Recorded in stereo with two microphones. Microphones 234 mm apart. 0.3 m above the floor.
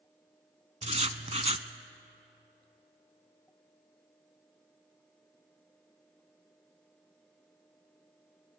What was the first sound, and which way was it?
Writing, 30° right (ahead or behind).